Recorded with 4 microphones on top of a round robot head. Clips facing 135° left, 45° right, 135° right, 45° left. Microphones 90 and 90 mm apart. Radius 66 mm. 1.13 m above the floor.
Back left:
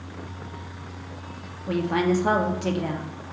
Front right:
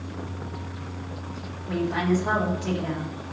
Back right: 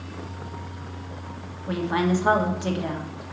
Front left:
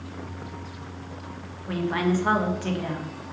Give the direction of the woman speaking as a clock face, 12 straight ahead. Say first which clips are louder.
Back left 2 dB, back right 1 dB; 7 o'clock.